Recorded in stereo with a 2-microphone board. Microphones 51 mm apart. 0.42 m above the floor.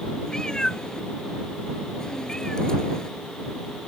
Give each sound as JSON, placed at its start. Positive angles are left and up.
{"t": 0.3, "sound": "a cat meowing", "side_deg": 10}